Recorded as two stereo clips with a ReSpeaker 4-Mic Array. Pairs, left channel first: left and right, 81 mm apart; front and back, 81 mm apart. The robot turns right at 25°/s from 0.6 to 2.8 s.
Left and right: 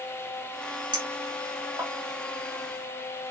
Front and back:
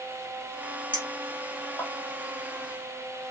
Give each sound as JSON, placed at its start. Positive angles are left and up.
{"t": 0.9, "sound": "a clink", "azimuth_deg": -70, "distance_m": 2.5}